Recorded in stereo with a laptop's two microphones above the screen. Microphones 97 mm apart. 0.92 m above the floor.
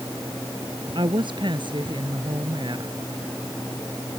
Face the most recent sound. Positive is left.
turn(degrees=-55)  # may be behind; listen again after turning